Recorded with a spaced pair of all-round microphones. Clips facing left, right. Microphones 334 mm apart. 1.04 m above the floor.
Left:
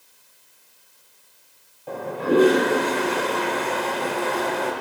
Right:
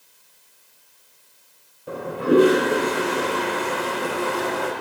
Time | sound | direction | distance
1.9 | a toilet flushing | 15° right (ahead or behind) | 0.5 m